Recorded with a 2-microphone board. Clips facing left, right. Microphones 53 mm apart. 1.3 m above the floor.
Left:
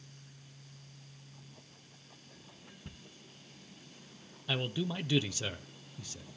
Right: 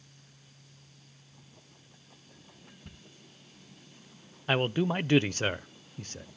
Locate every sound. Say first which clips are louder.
2.9 s ticking: left 1 dB; 15° left (ahead or behind), 1.1 m
4.5 s a man speaking: right 8 dB; 45° right (ahead or behind), 0.5 m